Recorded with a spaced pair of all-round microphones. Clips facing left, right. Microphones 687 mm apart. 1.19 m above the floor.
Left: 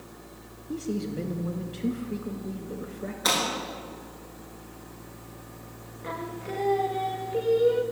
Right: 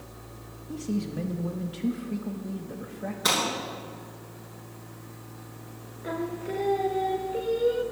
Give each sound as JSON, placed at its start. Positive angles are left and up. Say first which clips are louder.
{"t": 0.7, "sound": "a man speaking", "louder": "even", "side_deg": -20, "distance_m": 1.4}
{"t": 3.2, "sound": "breaking glass", "louder": "even", "side_deg": -55, "distance_m": 6.5}
{"t": 6.0, "sound": "singing", "louder": "right 4 dB", "side_deg": 35, "distance_m": 0.8}